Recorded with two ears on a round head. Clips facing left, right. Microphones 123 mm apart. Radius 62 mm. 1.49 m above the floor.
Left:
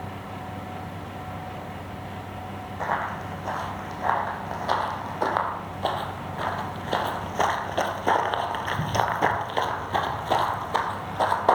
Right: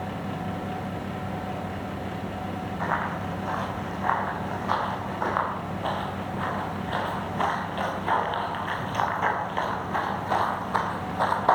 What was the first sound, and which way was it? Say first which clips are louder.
Running footsteps: left 2 dB; 30° left (ahead or behind).